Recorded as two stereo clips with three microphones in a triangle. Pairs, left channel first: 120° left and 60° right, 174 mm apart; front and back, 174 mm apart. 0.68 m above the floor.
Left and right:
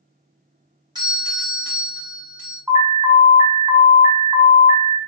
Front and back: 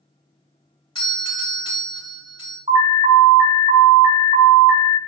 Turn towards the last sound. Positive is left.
turn(degrees=-130)